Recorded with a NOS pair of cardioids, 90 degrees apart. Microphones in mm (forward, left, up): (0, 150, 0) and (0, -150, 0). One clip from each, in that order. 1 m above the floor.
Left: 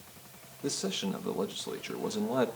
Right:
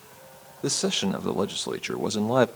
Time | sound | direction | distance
0.6 | a man speaking | 45° right | 0.7 m